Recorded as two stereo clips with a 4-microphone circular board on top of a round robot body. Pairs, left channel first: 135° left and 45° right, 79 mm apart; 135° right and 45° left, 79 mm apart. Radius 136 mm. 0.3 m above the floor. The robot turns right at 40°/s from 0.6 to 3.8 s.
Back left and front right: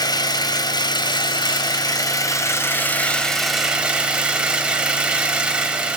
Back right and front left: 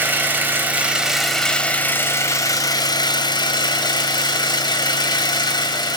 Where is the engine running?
110° left, 1.7 m; by 6.0 s 120° right, 1.7 m.